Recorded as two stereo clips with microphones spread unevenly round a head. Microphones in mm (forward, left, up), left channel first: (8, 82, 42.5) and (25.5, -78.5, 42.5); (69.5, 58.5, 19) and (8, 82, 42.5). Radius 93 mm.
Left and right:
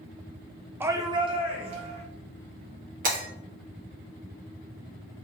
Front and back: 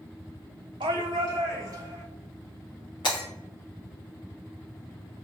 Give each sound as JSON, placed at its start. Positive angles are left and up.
{"t": 0.8, "sound": "a shout", "azimuth_deg": -160, "distance_m": 0.5}
{"t": 3.0, "sound": "breaking glass", "azimuth_deg": -45, "distance_m": 1.6}